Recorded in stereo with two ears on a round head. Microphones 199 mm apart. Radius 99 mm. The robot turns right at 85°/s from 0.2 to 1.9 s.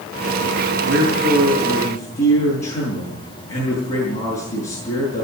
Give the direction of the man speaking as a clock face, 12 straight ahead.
2 o'clock.